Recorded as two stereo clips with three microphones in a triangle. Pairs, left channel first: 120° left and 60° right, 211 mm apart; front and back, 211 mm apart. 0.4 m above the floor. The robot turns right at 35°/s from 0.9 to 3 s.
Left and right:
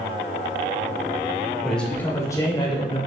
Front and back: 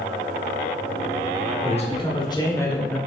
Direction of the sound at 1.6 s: 30° left.